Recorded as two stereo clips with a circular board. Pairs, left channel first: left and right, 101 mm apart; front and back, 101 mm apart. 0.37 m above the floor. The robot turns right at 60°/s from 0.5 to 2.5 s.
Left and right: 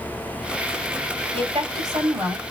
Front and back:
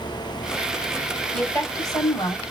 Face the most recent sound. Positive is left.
turn(degrees=-10)